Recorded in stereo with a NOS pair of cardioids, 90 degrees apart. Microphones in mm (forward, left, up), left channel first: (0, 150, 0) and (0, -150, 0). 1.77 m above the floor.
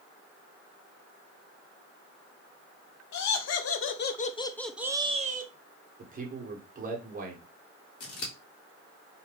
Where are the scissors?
45° left, 1.2 m.